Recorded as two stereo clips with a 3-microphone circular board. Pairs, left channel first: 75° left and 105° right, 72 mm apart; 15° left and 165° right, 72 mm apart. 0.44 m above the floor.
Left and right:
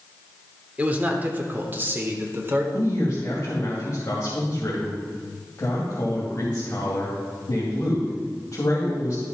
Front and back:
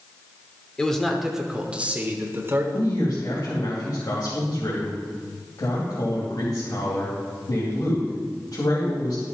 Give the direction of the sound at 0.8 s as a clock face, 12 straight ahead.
2 o'clock.